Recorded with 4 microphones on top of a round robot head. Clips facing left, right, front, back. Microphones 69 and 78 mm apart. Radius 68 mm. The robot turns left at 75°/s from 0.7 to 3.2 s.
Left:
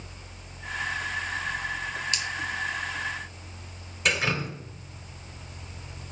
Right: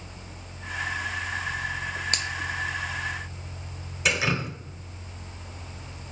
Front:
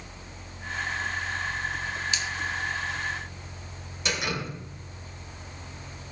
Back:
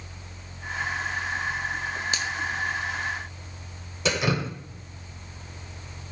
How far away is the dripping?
About 2 m.